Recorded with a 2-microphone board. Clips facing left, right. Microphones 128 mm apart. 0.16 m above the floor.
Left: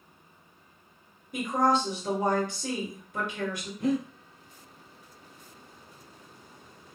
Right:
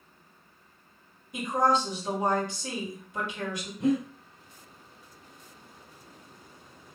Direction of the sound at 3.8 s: 20° right (ahead or behind).